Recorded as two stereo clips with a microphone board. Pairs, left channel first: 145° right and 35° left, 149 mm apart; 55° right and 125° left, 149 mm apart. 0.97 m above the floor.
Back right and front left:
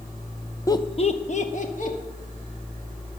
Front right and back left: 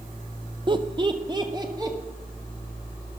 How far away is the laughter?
About 0.7 m.